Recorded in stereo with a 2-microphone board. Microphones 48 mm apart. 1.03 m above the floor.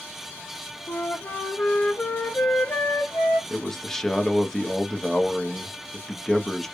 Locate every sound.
0.9 s a flute: 55° left (ahead or behind), 2.5 m
3.5 s a man speaking: 10° left (ahead or behind), 1.2 m